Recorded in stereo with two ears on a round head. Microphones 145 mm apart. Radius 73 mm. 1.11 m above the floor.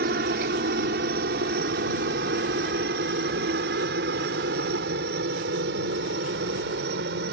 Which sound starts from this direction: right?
A helicopter, at 0.0 s.